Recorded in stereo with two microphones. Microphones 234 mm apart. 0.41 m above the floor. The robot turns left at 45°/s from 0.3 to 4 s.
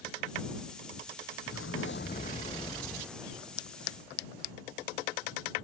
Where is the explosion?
70° left; by 3.6 s 25° right.